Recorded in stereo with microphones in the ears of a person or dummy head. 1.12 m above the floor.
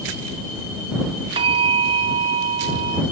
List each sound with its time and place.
1.4 s a bell: 30° right (ahead or behind)